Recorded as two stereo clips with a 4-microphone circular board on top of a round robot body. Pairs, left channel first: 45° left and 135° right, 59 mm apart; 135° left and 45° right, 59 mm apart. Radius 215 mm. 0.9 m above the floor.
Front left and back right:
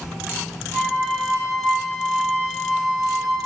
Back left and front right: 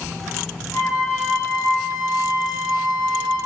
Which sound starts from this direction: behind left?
A flute, at 0.7 s.